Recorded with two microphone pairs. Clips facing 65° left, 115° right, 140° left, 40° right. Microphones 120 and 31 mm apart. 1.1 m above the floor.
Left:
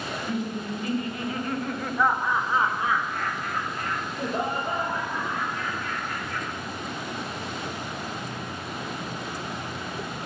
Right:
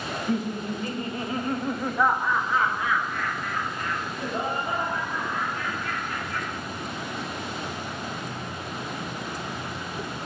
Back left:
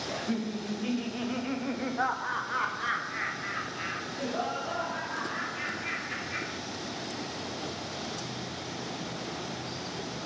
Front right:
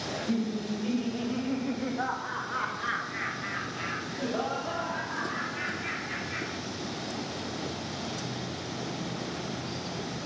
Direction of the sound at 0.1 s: 155° right.